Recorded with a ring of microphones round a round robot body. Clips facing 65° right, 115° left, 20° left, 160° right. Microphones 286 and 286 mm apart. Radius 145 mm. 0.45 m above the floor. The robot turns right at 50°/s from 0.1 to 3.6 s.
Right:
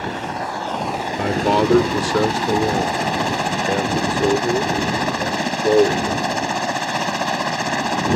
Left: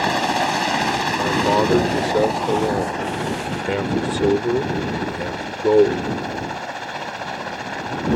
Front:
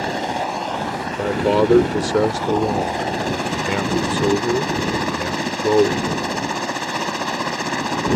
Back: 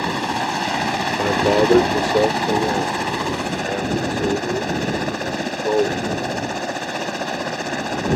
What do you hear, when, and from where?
0.0 s a helicopter: 125° left; by 8.2 s 60° right
1.2 s a man speaking: 85° right; by 6.1 s 40° left